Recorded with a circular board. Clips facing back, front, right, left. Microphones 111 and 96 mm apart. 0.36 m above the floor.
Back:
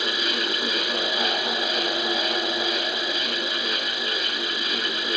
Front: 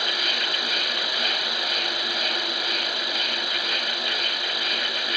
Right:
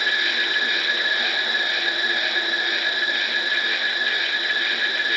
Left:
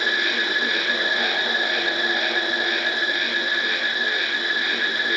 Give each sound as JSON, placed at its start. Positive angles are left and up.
{"t": 0.0, "sound": "an insect", "azimuth_deg": 0, "distance_m": 2.0}